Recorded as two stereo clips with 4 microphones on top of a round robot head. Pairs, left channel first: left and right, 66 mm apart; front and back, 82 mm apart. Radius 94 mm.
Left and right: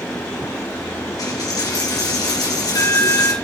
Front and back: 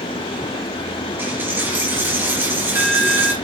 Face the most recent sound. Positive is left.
turn(degrees=115)